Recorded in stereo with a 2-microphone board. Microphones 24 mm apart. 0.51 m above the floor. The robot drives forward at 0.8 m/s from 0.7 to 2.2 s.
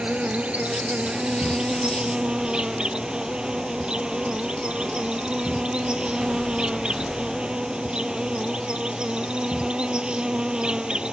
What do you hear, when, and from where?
0.0 s an insect: 75° right (ahead or behind); by 11.1 s 45° right (ahead or behind)